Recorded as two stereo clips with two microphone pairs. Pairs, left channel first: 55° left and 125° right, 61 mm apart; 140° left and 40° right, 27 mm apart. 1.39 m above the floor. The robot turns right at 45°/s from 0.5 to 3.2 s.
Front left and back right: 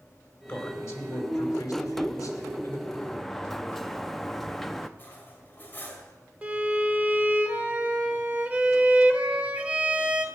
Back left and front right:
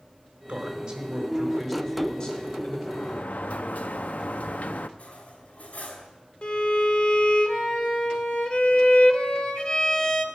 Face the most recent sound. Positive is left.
turn(degrees=170)